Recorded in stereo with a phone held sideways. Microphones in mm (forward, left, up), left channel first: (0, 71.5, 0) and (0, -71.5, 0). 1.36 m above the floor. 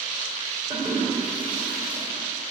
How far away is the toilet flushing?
About 2.5 m.